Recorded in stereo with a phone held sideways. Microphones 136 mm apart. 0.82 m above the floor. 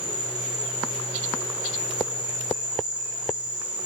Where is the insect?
55° right (ahead or behind), 2.5 m.